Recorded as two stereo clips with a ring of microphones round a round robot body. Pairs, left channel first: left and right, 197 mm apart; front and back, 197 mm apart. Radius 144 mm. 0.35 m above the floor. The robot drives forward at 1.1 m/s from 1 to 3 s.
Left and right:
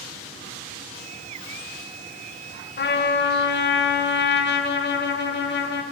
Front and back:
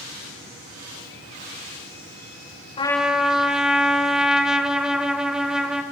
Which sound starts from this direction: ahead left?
A trumpet, at 2.8 s.